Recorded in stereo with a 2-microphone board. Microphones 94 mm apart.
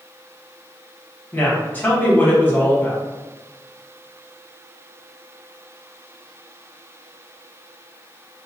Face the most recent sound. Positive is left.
turn(degrees=20)  # may be behind; listen again after turning